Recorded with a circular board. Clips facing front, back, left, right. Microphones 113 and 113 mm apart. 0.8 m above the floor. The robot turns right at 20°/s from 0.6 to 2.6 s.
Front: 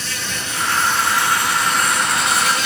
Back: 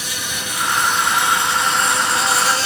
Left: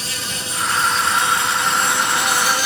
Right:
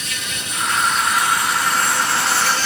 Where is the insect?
115° left, 1.1 m; by 2.7 s 155° left, 1.1 m.